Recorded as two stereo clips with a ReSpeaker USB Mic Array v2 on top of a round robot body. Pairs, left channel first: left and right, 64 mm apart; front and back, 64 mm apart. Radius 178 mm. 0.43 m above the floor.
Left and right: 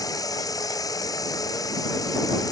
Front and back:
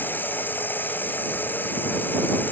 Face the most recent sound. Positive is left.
turn(degrees=60)